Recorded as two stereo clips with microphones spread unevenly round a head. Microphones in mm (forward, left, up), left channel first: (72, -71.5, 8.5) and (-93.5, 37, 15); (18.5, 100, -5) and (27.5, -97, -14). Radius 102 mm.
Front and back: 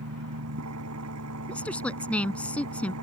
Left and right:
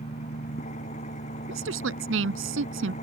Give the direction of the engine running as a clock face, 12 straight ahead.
7 o'clock.